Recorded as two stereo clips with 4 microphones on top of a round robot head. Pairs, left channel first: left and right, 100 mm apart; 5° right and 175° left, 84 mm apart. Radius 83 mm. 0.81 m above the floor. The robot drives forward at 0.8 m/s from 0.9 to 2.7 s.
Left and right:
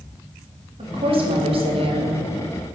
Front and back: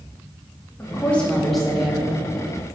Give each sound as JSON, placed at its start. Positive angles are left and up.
{"t": 0.8, "sound": "a woman speaking", "azimuth_deg": -75, "distance_m": 1.9}